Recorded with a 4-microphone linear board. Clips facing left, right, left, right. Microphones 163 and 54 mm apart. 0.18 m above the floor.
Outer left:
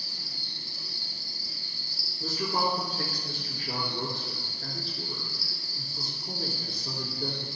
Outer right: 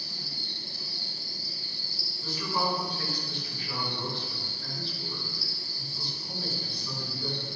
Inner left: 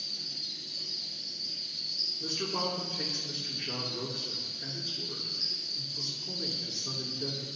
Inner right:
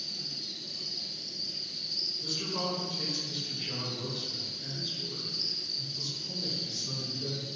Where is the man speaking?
45° left (ahead or behind), 3 m.